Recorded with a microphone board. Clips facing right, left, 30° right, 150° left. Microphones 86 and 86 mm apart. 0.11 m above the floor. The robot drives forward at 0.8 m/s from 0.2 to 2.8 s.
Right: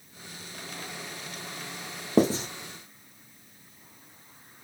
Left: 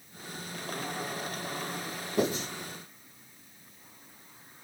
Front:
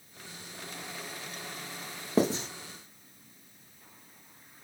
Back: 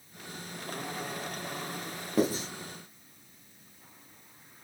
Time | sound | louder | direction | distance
2.2 | writing | right 6 dB, front 1 dB | 90° right | 2.5 m